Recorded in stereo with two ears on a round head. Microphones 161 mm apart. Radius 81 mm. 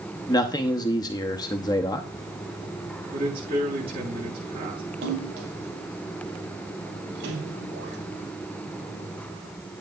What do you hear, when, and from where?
0.3 s a man speaking: 20° left (ahead or behind), 0.8 m
3.1 s a man speaking: 30° right (ahead or behind), 7 m
5.0 s a splash: 65° right (ahead or behind), 5.5 m